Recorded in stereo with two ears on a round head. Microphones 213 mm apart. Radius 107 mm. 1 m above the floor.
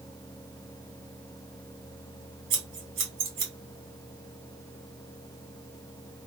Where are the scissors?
55° right (ahead or behind), 1.5 m.